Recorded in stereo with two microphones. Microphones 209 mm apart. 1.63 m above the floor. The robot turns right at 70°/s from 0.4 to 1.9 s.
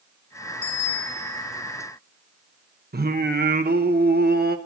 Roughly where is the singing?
Right.